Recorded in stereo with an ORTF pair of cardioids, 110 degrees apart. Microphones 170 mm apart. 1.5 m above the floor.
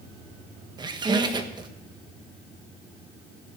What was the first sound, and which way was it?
A squeak, 30° right.